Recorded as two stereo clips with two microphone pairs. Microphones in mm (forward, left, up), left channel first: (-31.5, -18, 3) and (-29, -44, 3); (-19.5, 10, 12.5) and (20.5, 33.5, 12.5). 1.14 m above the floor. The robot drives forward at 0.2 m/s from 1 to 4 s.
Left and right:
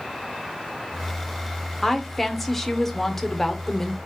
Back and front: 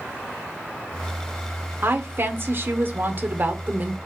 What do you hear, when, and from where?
1.8 s a woman speaking: 15° left, 0.8 m; by 4.0 s 35° left, 0.5 m